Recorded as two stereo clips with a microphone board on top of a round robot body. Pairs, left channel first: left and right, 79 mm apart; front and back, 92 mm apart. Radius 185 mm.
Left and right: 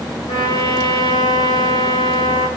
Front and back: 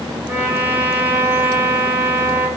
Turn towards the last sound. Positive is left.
turn(degrees=110)